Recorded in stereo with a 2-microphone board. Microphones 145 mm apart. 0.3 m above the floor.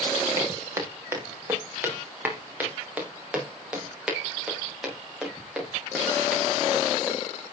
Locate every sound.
0.4 s footsteps: 25° right (ahead or behind), 5 m; by 7.2 s centre (ahead or behind), 10 m